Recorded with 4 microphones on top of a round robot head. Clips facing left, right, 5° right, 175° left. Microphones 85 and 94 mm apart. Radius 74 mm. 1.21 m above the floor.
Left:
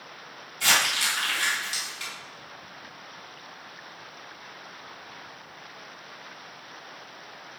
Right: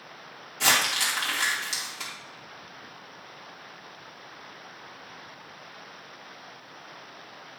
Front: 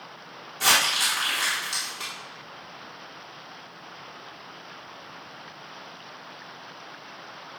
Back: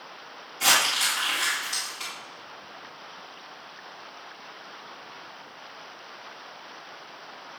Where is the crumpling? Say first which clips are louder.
Even, front 1 dB; 80° right, 2 m.